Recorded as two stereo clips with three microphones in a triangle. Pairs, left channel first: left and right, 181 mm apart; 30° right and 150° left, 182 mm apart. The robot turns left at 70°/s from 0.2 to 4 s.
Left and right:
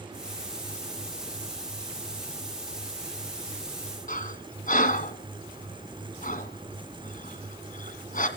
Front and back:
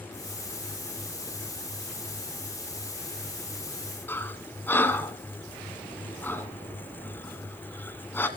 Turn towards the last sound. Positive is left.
turn(degrees=45)